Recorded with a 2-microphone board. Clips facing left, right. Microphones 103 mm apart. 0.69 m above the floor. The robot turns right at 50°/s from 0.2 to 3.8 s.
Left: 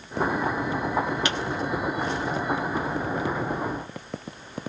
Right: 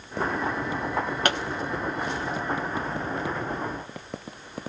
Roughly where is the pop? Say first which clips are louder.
Right 3 dB; right.